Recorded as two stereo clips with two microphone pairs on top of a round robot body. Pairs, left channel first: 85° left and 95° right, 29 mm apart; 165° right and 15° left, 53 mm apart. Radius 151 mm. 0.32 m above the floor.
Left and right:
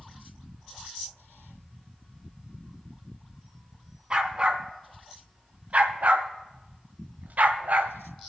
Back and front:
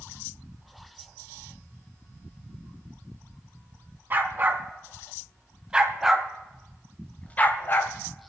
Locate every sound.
4.1 s a dog barking: 35° right, 2 m; by 8.0 s 120° right, 1.2 m